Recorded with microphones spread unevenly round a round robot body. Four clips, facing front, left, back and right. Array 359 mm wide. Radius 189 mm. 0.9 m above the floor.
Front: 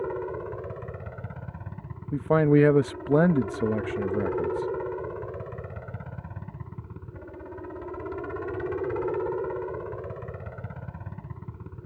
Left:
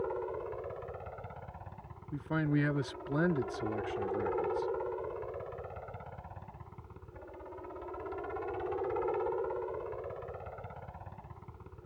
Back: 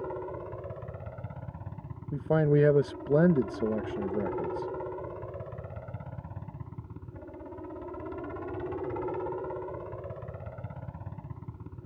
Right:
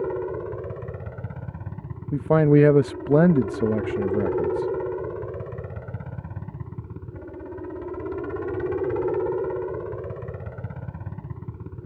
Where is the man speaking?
70° right.